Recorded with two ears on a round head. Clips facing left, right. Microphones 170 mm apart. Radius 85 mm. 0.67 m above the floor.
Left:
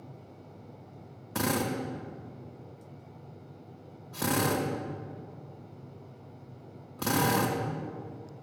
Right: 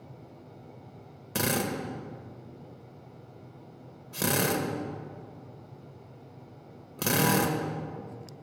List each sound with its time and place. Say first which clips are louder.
1.4 s a drill: even; 35° right (ahead or behind), 2 m